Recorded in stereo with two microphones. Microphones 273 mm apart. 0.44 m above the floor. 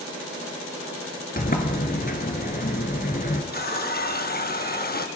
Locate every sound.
1.4 s a sliding door: 35° left (ahead or behind), 1.1 m
3.5 s a running tap: 35° left (ahead or behind), 0.6 m